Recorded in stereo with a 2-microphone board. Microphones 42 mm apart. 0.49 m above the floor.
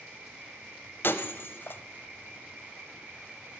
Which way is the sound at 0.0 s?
60° right (ahead or behind).